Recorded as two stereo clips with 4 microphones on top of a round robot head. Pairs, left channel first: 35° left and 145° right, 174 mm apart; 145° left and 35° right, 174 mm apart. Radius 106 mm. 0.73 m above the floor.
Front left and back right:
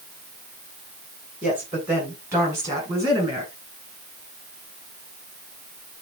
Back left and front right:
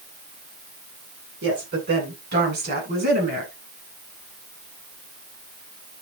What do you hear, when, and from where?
1.4 s a woman speaking: 60° right, 9 m; by 3.5 s 75° right, 9 m